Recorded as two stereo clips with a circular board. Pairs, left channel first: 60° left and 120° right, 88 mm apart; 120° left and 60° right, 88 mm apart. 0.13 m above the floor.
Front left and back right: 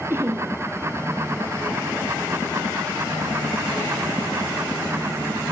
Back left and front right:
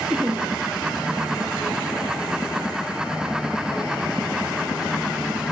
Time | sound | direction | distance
0.1 | laughter | 135° right | 1.8 m